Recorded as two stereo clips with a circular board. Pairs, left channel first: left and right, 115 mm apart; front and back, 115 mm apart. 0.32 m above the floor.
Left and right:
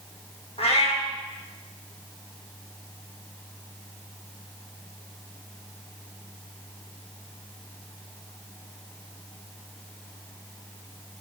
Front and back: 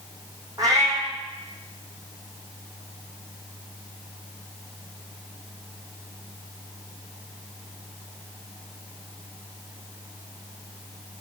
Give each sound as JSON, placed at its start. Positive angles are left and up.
{"t": 0.6, "sound": "a cat meowing", "azimuth_deg": 120, "distance_m": 1.7}